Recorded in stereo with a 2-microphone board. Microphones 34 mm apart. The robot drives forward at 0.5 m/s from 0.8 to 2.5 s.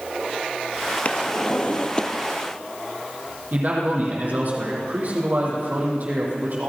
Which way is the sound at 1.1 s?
45° left (ahead or behind).